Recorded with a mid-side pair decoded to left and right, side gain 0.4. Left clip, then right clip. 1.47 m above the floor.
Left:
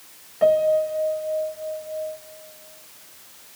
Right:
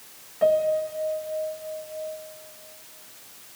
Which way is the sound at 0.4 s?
25° left.